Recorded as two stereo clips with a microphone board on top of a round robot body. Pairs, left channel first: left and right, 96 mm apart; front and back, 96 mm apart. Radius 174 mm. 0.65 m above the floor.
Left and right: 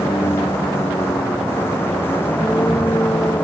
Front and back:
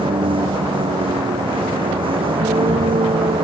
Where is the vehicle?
155° left; by 3.5 s 160° left.